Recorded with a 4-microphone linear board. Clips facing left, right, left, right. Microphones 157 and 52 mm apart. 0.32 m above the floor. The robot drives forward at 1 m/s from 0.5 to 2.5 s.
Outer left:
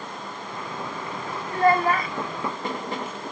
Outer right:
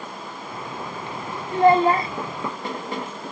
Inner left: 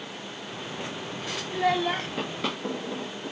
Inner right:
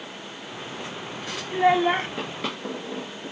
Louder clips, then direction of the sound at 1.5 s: Outer right 4 dB, inner right 6 dB; 20° right (ahead or behind).